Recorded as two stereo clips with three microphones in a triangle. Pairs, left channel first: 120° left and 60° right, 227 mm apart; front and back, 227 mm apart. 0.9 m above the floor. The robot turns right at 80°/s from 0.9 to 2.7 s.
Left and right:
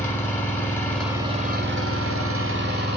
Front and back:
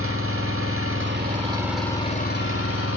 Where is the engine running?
160° right, 1.7 m; by 3.0 s 15° right, 1.7 m.